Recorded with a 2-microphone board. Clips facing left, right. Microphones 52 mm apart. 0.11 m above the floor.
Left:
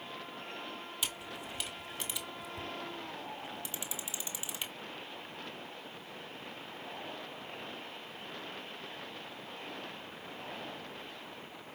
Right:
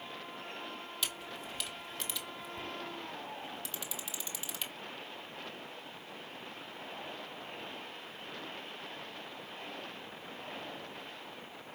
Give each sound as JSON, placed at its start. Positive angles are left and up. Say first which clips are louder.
{"t": 1.0, "sound": "a camera shutter", "louder": "even", "side_deg": 15, "distance_m": 1.0}